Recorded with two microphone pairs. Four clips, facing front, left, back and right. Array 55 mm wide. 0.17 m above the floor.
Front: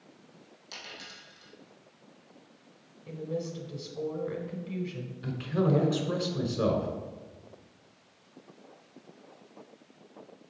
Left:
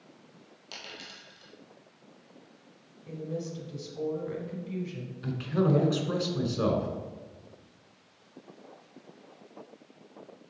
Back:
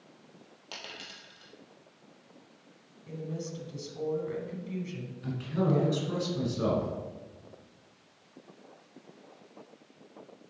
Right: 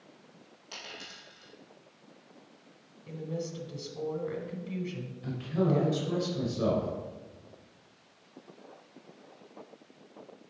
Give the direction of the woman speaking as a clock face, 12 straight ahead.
2 o'clock.